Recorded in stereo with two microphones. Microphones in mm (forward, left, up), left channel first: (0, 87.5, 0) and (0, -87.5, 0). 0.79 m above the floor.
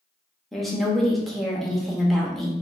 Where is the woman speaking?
Centre (ahead or behind), 0.8 m.